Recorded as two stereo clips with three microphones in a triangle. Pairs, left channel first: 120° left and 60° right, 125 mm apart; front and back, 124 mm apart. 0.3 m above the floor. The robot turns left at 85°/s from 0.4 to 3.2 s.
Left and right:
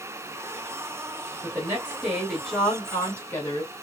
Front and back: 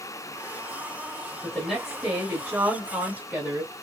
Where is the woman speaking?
75° right, 1.3 m; by 3.7 s 135° left, 1.3 m.